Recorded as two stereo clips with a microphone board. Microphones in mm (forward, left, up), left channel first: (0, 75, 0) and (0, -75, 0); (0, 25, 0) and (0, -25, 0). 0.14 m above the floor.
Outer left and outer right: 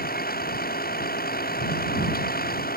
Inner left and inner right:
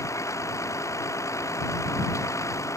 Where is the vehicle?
90° left; by 2.8 s 85° left.